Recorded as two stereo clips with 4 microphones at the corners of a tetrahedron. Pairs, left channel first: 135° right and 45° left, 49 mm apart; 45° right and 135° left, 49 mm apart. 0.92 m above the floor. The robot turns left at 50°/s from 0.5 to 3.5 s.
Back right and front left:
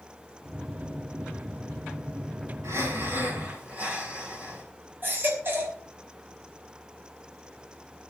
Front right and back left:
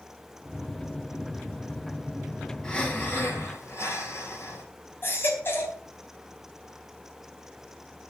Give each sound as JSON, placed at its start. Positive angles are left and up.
{"t": 2.6, "sound": "breathing", "azimuth_deg": 30, "distance_m": 6.5}
{"t": 5.0, "sound": "a baby crying", "azimuth_deg": 0, "distance_m": 4.0}